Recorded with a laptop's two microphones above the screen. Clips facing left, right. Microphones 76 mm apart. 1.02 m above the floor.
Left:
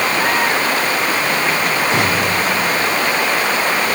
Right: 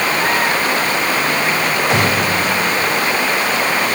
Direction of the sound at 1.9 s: 70° right (ahead or behind).